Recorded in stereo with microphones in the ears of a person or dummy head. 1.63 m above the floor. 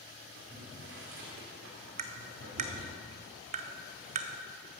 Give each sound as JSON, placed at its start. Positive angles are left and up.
{"t": 0.3, "sound": "boiling", "side_deg": -70, "distance_m": 3.0}
{"t": 2.0, "sound": "tapping", "side_deg": -45, "distance_m": 0.9}